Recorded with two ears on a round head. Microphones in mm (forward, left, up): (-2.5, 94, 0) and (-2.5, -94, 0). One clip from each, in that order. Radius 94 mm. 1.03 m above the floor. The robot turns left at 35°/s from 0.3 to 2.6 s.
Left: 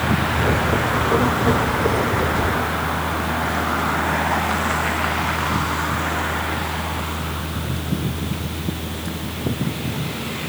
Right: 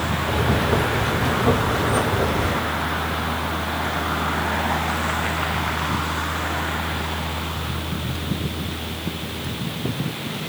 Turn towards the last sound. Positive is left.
No sound to turn to.